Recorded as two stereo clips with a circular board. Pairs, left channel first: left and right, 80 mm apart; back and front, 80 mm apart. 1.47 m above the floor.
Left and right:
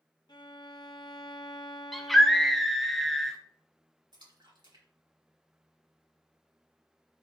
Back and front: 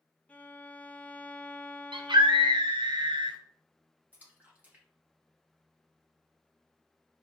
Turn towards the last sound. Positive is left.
turn(degrees=-70)